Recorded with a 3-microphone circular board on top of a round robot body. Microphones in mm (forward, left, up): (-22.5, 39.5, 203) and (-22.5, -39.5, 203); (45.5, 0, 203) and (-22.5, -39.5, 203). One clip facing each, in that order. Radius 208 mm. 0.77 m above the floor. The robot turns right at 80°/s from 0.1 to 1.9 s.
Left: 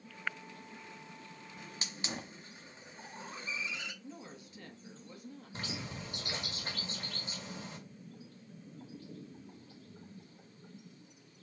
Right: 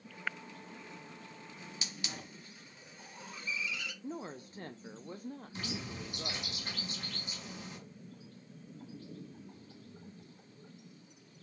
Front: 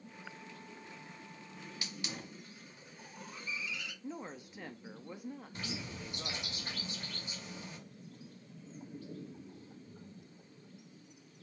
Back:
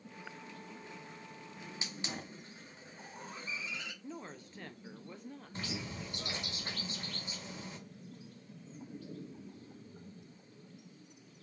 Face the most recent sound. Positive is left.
turn(degrees=150)